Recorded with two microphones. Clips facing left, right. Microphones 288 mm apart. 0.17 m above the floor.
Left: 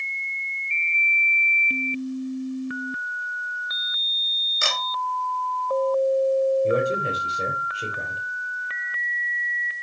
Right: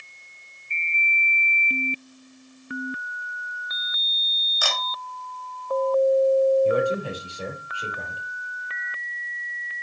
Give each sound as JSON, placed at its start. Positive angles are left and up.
{"t": 4.6, "sound": "a camera shutter", "side_deg": 25, "distance_m": 2.5}
{"t": 6.6, "sound": "a man speaking", "side_deg": 25, "distance_m": 5.0}